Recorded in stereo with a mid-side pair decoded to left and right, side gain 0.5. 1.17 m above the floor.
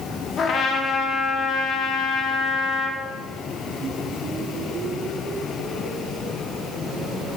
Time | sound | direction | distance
0.4 | a trumpet | 50° left | 0.8 m